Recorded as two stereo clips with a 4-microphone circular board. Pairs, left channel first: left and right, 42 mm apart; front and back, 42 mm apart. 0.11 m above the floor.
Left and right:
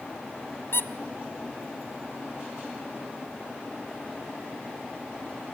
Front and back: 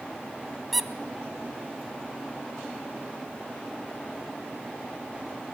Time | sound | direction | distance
0.7 | a squeak | 90° left | 1.3 m